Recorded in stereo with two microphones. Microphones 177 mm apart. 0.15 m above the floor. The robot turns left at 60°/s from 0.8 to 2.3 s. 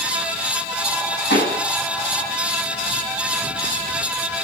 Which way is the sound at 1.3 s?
75° left (ahead or behind).